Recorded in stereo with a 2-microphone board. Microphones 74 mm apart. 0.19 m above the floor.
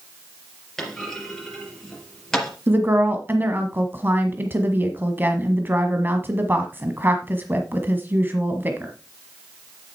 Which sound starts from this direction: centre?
A clunk, at 0.8 s.